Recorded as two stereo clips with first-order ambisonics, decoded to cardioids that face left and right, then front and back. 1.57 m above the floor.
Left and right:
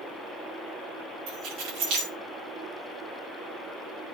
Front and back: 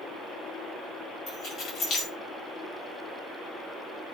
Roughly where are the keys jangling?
Ahead right.